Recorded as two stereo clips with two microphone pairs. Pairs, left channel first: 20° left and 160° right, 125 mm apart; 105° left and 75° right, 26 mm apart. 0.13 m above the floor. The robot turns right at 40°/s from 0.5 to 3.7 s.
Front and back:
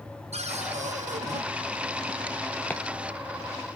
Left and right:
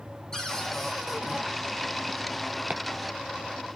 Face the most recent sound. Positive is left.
turn(degrees=-15)